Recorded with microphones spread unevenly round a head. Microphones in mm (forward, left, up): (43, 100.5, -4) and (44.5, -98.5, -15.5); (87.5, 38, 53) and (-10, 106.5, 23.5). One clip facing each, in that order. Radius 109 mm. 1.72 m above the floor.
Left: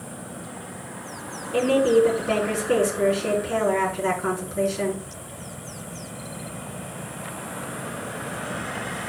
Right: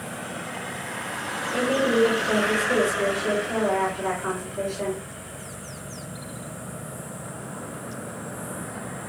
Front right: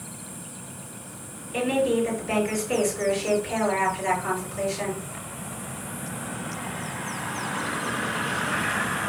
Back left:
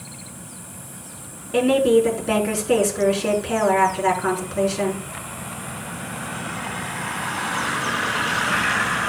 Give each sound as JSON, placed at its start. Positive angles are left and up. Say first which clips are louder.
{"t": 1.5, "sound": "a woman speaking", "louder": "left 4 dB, back left 7 dB", "azimuth_deg": 145, "distance_m": 4.5}